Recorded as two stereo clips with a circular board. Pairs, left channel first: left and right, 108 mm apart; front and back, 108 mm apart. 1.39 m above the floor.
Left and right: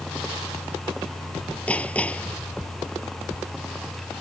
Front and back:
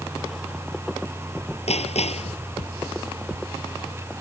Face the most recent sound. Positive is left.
turn(degrees=10)